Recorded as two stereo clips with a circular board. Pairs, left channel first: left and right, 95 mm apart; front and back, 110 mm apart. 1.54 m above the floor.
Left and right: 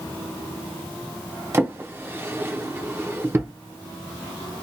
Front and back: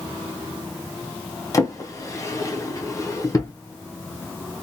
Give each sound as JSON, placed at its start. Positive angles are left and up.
{"t": 1.5, "sound": "a drawer", "azimuth_deg": -40, "distance_m": 0.7}